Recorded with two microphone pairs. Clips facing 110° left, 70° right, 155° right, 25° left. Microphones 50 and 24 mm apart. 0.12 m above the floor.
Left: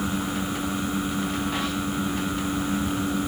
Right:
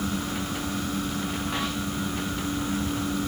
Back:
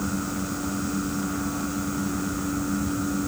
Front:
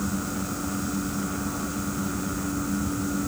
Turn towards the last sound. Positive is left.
No sound to turn to.